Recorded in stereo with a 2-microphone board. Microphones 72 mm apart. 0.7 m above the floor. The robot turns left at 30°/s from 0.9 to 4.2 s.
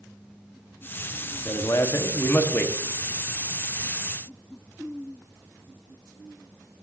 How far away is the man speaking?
About 1.0 m.